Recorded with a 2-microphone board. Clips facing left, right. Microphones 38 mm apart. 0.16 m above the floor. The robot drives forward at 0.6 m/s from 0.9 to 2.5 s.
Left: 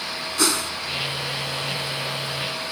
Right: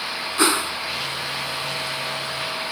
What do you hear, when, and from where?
0.4 s a whoosh: 25° right (ahead or behind)